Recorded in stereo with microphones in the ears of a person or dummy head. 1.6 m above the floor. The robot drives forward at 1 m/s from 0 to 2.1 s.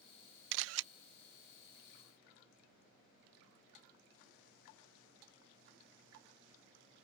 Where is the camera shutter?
65° right (ahead or behind); by 0.9 s 80° right.